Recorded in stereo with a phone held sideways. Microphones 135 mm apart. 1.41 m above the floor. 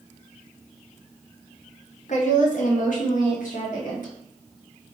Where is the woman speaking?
60° left (ahead or behind), 0.7 m; by 4.1 s 80° left, 1.7 m.